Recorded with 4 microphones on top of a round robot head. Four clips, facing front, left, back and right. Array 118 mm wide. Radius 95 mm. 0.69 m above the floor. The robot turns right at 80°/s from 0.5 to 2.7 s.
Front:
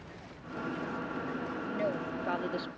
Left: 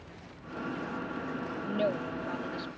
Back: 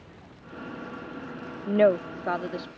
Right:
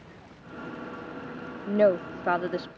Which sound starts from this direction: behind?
A woman speaking, at 1.7 s.